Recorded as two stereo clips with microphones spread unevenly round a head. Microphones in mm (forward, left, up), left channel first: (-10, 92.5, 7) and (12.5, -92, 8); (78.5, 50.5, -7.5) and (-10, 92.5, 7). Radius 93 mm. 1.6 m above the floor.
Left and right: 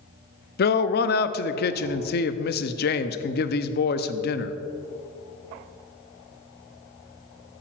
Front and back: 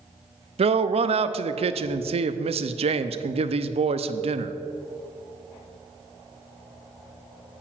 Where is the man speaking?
140° left, 0.6 m.